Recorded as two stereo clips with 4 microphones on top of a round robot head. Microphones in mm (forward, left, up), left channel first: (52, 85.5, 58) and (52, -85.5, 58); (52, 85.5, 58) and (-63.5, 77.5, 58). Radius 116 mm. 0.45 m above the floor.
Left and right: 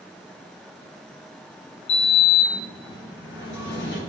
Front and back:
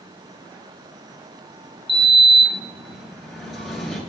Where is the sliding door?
95° left, 9.5 m.